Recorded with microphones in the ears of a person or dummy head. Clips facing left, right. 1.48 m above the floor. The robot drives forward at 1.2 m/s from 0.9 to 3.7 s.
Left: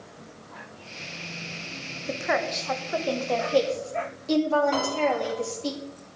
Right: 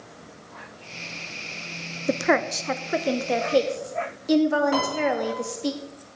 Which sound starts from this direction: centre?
A piano, at 4.7 s.